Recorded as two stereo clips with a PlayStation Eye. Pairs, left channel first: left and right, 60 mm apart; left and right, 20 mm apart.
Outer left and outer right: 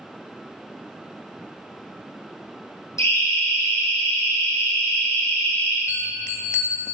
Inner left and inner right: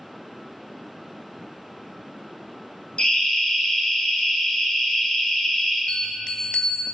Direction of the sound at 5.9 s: 55° left (ahead or behind).